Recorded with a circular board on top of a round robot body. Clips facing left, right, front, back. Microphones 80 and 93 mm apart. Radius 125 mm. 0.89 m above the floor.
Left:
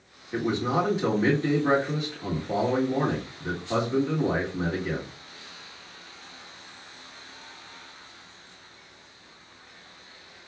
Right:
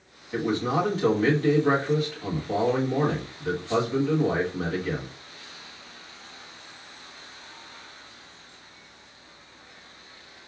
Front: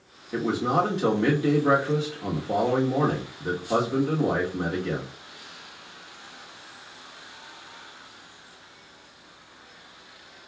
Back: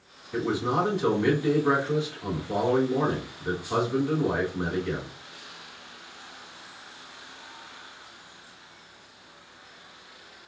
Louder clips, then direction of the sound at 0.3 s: Even, front 2 dB; 20° left.